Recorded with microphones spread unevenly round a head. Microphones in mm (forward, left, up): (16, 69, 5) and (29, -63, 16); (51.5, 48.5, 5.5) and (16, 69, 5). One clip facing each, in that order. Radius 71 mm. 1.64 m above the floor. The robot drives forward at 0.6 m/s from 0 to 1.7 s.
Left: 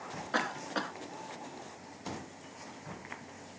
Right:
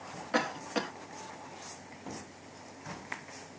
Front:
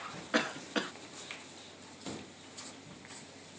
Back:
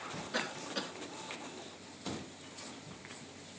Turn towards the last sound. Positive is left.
turn(degrees=-140)